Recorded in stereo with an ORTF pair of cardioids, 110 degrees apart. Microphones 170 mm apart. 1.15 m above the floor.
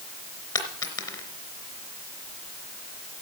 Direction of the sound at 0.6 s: 25° left.